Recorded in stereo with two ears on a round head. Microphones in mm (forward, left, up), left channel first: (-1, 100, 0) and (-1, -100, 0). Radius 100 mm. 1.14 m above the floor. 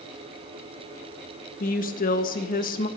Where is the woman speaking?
40° left (ahead or behind), 1.6 m.